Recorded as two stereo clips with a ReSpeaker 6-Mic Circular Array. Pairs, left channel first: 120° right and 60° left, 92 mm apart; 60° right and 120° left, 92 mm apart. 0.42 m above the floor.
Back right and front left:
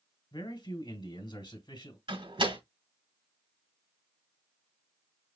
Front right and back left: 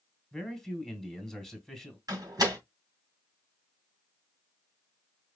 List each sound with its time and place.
0.3 s a man speaking: 145° right, 1.9 m
2.1 s a door slam: 75° left, 2.5 m